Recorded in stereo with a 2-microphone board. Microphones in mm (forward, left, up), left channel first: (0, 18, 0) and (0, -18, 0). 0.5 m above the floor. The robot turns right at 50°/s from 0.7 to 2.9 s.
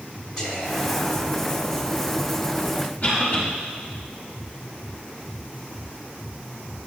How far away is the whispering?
About 2.5 m.